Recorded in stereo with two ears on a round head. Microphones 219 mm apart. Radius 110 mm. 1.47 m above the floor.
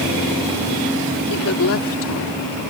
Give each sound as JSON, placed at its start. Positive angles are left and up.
{"t": 1.3, "sound": "a woman speaking", "side_deg": 70}